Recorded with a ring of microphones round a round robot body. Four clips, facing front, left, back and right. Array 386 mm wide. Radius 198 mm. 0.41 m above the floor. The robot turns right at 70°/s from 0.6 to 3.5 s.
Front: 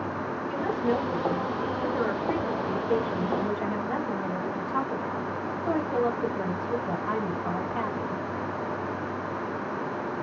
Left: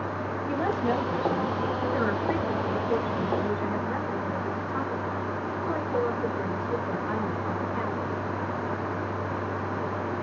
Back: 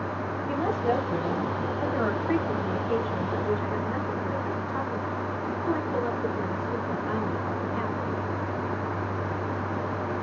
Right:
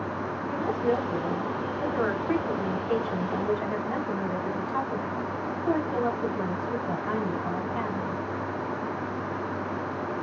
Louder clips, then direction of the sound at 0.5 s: Even, back 1 dB; 130° left.